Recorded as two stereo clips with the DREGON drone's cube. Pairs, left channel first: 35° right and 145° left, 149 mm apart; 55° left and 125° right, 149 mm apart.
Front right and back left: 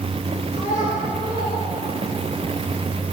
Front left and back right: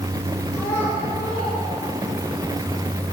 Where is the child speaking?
20° right, 3 m; by 2.4 s 5° right, 5.5 m.